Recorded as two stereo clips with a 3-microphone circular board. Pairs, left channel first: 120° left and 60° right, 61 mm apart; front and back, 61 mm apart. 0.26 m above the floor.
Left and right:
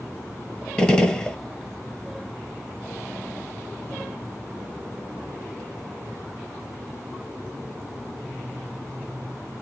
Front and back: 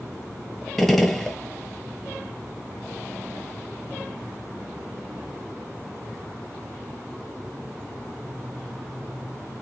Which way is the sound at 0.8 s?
75° left.